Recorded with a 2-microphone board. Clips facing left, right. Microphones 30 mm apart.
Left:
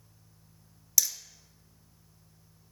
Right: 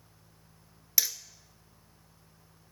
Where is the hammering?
30° right (ahead or behind), 0.9 m.